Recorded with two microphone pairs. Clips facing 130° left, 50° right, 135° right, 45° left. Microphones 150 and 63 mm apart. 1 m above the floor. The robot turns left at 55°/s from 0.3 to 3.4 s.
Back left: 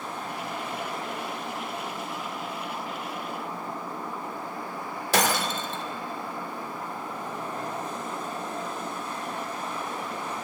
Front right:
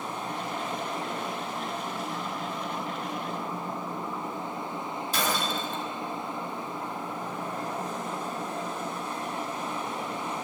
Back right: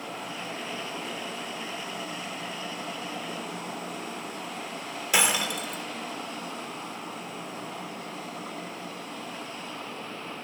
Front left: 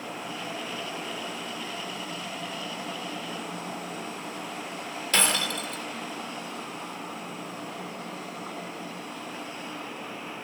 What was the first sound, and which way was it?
Breaking glass, 145° left.